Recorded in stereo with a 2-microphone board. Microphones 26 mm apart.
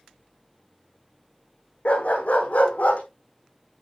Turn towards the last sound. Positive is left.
turn(degrees=65)  # may be behind; listen again after turning